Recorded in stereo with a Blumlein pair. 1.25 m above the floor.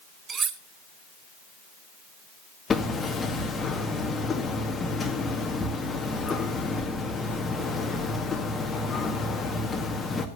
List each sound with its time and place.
0.3 s cutlery clinking: 20° right, 1.0 m
2.7 s hammering: 15° left, 1.8 m